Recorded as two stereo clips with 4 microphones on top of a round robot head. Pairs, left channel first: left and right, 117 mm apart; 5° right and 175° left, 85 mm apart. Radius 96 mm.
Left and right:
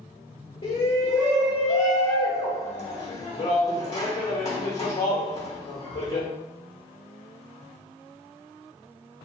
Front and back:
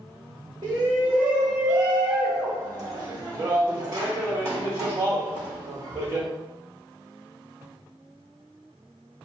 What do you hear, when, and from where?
0.6 s a shout: 135° left, 0.8 m